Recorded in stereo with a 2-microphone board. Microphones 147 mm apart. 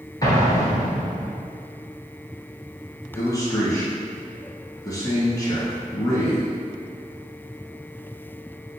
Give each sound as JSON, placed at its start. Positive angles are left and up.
{"t": 0.2, "sound": "an explosion", "side_deg": 25, "distance_m": 1.3}
{"t": 3.1, "sound": "a man speaking", "side_deg": 25, "distance_m": 1.3}